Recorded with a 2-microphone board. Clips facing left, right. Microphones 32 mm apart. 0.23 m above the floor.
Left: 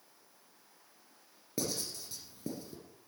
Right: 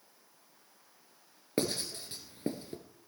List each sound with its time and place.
1.6 s writing: 45° right (ahead or behind), 2 m